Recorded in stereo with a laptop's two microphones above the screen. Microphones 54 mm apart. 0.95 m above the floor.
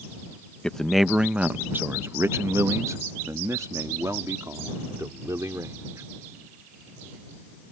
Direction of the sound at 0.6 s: 15° left (ahead or behind).